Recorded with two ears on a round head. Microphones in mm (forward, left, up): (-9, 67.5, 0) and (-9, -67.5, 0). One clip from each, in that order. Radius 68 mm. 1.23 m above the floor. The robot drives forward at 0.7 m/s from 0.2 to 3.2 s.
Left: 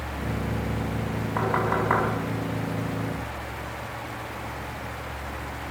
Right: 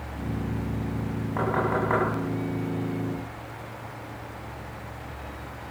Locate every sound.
1.4 s knocking: 30° left (ahead or behind), 8.5 m